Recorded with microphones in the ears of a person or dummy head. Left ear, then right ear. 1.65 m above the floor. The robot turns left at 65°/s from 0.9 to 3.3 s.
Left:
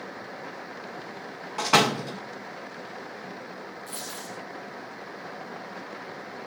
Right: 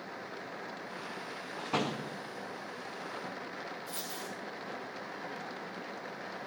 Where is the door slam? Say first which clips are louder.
Left 13 dB; 60° left (ahead or behind), 0.9 m; by 2.2 s 50° left (ahead or behind), 0.9 m.